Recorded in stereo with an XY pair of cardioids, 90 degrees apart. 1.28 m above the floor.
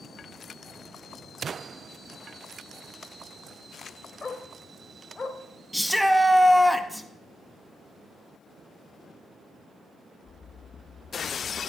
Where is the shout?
Straight ahead, 1.6 m.